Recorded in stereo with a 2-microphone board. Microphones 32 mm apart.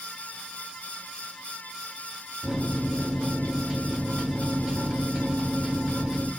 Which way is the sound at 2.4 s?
10° right (ahead or behind).